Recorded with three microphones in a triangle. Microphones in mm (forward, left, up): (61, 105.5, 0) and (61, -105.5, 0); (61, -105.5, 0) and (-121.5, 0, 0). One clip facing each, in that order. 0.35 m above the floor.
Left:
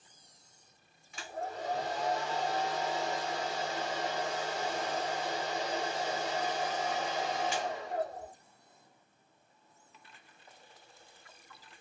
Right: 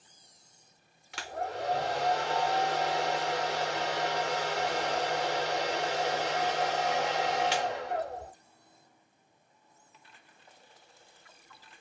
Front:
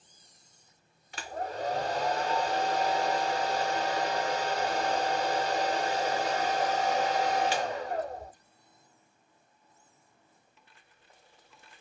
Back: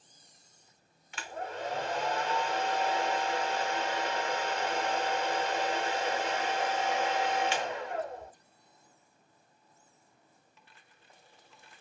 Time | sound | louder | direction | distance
1.1 | a hair dryer | right 4 dB, front 3 dB | 85° right | 0.6 m